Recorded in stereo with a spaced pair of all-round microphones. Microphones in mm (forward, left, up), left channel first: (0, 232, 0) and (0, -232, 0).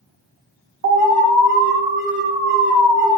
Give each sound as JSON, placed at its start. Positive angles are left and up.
{"t": 0.8, "sound": "an alarm", "side_deg": -50, "distance_m": 1.1}